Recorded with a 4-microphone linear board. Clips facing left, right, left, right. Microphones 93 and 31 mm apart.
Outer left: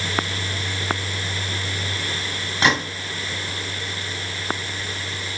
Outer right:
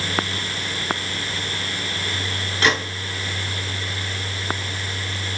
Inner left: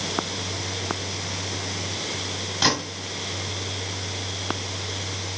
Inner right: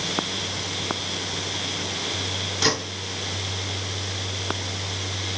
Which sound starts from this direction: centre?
A gunshot, at 2.6 s.